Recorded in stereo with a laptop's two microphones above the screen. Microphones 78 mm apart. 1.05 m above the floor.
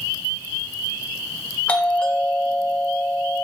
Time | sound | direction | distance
1.7 | a doorbell | 15° left (ahead or behind) | 1.4 m